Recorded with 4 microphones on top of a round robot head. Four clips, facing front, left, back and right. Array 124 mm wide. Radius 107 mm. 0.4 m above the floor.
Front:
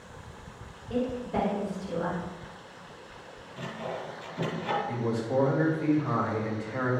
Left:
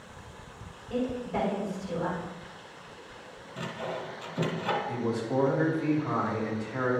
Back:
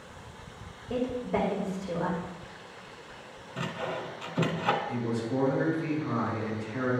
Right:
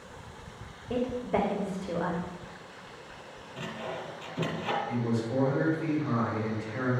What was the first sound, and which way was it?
A woman speaking, 120° right.